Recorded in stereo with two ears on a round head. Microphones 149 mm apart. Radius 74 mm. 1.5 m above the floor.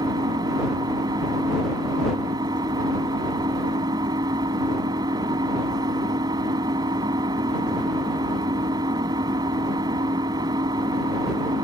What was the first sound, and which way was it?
An engine running, 25° right (ahead or behind).